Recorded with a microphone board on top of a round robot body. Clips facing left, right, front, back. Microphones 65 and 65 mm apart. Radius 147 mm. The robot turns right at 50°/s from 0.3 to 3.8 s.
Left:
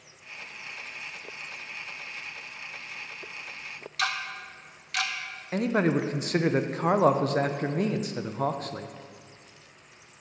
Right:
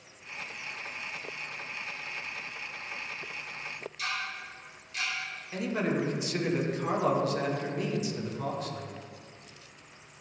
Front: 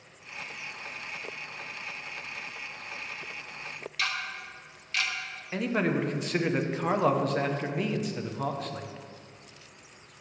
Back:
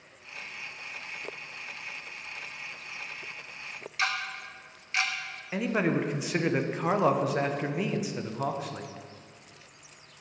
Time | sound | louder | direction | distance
4.0 | ticking | left 5 dB, back 3 dB | 110° left | 0.5 m
5.5 | a man speaking | left 5 dB, even | 95° left | 0.8 m